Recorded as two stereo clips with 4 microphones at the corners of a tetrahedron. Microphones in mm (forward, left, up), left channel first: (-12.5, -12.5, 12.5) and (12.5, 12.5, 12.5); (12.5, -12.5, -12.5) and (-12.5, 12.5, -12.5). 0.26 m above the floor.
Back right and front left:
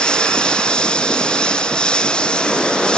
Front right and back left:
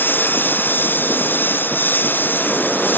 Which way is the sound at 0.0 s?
70° right.